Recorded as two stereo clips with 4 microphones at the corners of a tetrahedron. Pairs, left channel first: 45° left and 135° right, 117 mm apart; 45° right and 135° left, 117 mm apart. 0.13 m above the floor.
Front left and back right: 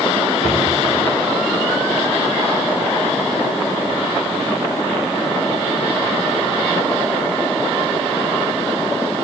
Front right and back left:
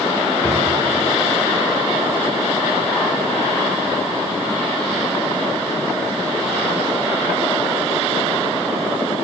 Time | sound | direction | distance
0.4 | a drawer | 25° left | 4 m